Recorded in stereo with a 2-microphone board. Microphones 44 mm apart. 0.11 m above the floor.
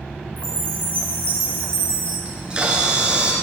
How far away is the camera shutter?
About 1.3 m.